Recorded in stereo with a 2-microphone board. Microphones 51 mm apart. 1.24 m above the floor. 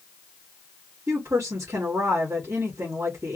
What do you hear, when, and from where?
1.1 s a woman speaking: 75° right (ahead or behind), 2.5 m